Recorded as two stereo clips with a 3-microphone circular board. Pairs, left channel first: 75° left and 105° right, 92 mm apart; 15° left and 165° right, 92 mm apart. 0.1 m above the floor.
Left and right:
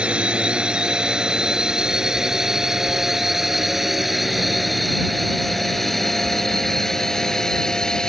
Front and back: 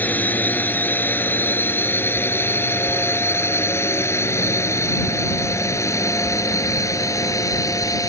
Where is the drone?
35° right; by 8.1 s 5° right.